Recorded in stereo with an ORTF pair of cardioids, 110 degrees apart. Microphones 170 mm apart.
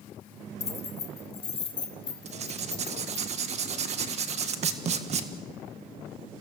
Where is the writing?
45° right, 1.7 m.